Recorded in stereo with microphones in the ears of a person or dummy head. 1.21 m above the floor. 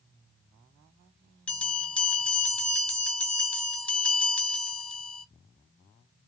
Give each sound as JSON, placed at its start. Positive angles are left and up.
{"t": 1.5, "sound": "a bell", "side_deg": 5, "distance_m": 1.9}